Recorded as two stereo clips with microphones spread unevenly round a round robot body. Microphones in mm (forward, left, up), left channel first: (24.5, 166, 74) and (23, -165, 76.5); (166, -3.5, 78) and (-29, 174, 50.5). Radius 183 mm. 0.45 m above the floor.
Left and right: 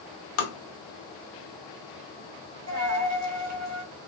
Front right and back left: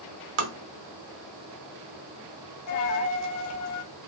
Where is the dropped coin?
50° right, 0.7 m.